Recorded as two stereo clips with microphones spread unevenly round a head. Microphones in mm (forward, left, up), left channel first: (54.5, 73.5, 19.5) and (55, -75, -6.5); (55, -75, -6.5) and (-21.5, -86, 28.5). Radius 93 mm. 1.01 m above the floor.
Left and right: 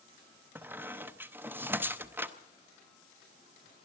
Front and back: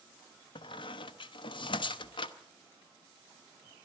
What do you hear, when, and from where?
0.6 s a squeak: 10° right, 0.8 m